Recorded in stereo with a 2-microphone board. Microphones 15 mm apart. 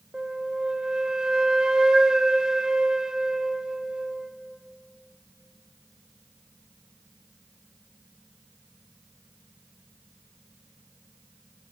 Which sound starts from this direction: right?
A flute, at 0.1 s.